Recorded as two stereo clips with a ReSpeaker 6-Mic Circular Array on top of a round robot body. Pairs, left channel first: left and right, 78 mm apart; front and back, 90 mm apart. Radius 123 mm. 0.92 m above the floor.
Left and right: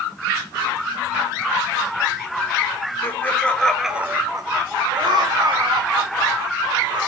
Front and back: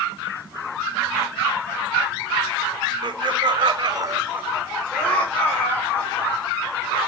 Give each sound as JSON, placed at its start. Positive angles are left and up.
{"t": 3.0, "sound": "laughter", "azimuth_deg": 150, "distance_m": 1.5}